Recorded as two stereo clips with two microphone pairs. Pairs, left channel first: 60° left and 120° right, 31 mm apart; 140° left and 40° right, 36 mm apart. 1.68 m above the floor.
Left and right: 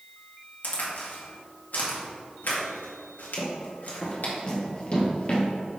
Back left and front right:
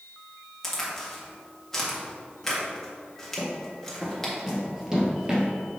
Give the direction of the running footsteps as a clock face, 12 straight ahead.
10 o'clock.